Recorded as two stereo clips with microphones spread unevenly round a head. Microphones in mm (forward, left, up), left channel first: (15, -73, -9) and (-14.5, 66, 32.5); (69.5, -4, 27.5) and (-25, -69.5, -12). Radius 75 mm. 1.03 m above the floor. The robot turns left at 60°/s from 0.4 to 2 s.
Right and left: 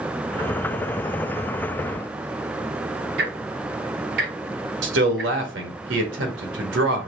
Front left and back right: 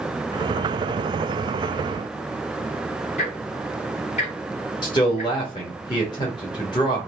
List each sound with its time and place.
3.2 s ticking: 85° left, 1.8 m
4.8 s a man speaking: 100° left, 1.5 m